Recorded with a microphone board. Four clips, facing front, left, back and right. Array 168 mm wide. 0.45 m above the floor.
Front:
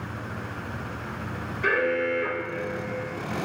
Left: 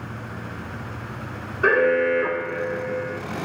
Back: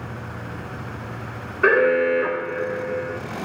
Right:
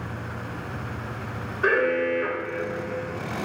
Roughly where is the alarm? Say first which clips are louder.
Left 4 dB, back 8 dB; behind.